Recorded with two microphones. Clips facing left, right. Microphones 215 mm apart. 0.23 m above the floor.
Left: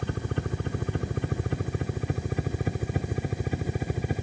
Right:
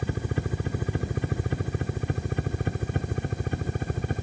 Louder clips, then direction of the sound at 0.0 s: Right 1 dB; 5° right (ahead or behind).